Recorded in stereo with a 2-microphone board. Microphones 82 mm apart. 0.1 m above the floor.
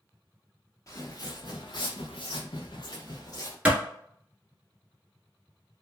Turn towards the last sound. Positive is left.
turn(degrees=-15)  # may be behind; listen again after turning